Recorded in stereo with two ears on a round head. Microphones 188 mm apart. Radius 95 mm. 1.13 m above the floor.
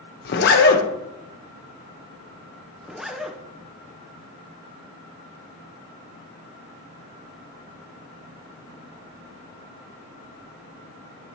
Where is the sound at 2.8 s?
Centre (ahead or behind), 0.6 m.